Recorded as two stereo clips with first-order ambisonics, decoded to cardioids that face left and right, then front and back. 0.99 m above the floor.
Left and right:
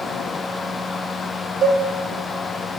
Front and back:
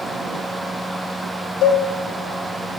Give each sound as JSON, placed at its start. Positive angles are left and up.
{"t": 1.6, "sound": "a cowbell", "azimuth_deg": -35, "distance_m": 1.0}